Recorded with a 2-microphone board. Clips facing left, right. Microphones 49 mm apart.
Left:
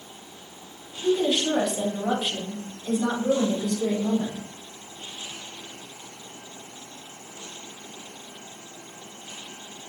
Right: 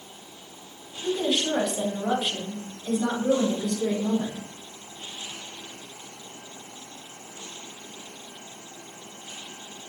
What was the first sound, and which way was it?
A woman speaking, 5° left (ahead or behind).